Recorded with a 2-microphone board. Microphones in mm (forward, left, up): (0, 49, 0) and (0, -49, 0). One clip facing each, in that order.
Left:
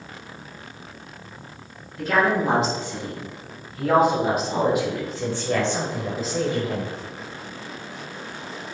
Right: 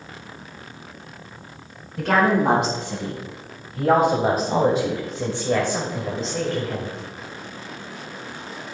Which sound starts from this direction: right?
A woman speaking, at 2.0 s.